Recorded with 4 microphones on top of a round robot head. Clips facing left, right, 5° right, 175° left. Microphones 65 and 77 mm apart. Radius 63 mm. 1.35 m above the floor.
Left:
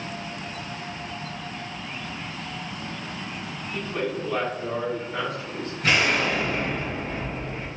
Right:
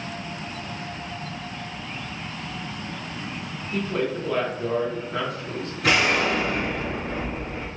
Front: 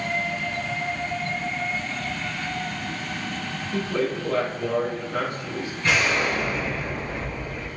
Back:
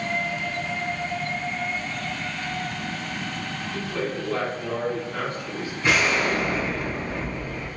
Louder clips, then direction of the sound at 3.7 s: Right 3 dB, front 4 dB; 45° right.